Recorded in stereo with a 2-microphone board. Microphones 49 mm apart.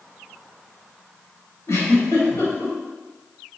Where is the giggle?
75° left (ahead or behind), 1.3 m.